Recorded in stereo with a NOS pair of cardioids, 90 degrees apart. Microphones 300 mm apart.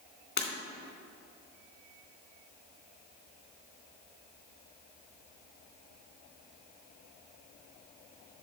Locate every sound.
0.4 s breaking glass: 35° left, 2.5 m